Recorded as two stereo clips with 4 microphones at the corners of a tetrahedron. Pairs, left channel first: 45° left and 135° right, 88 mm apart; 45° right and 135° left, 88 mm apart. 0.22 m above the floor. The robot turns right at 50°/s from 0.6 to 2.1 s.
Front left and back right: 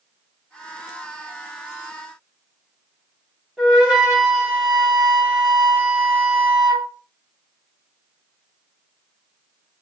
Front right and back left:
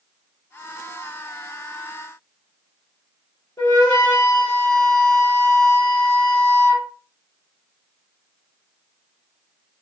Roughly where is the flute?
Ahead right.